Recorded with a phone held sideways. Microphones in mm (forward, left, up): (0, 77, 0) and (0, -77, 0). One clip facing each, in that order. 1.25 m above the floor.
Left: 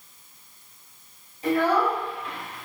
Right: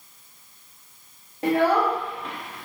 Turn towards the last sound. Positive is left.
turn(degrees=-70)  # may be behind; listen again after turning